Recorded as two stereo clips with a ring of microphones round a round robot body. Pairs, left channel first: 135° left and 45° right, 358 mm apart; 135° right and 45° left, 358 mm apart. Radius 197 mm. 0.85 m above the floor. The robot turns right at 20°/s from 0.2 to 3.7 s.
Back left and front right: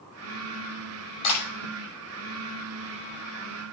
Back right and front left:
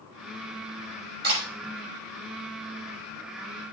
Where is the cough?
No cough in this recording.